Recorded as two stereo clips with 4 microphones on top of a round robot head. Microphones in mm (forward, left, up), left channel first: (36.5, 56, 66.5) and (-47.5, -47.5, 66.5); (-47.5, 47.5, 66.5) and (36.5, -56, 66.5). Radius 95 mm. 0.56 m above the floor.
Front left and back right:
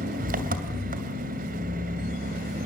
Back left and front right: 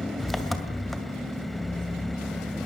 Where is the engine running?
140° right, 2.5 m.